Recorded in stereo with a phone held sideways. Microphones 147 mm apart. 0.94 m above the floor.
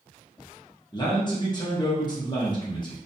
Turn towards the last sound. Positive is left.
turn(degrees=30)  # may be behind; listen again after turning